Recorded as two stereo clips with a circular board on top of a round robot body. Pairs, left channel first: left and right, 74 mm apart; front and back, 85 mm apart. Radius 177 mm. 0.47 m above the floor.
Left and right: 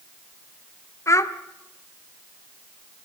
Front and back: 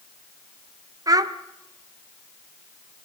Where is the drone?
No drone in this recording.